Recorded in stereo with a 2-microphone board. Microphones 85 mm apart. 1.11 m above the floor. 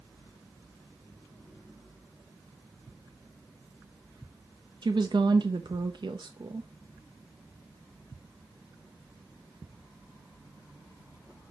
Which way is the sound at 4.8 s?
60° right (ahead or behind).